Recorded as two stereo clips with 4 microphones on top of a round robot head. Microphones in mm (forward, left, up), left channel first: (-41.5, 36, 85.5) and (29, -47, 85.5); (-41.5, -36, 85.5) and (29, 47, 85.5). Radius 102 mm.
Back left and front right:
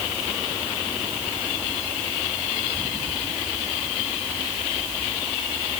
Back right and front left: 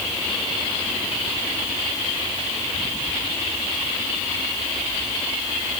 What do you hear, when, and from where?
Only background noise.